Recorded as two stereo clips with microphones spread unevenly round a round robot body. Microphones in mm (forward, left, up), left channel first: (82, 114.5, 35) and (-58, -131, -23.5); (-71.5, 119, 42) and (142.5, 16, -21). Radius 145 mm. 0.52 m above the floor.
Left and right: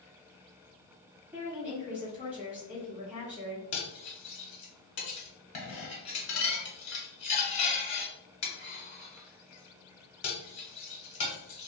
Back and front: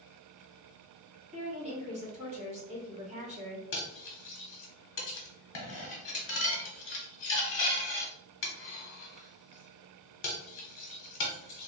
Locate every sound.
1.3 s a woman speaking: 50° right, 1.6 m
3.7 s cutlery clinking: 115° left, 1.0 m